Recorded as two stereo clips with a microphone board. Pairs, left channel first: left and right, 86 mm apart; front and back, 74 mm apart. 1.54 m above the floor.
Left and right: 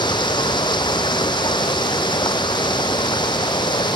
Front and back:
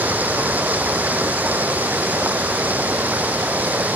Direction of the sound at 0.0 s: 115° left.